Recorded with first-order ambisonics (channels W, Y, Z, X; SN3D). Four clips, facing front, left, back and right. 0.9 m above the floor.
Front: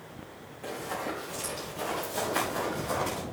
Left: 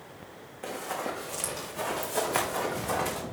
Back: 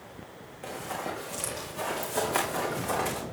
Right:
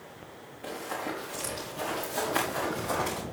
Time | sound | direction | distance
0.6 | running footsteps | 110° left | 3 m